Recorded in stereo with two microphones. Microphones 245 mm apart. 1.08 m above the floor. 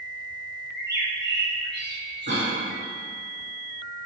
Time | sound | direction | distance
0.7 | a bird | 45° right (ahead or behind) | 1.4 m
2.3 | a cough | 45° right (ahead or behind) | 2.5 m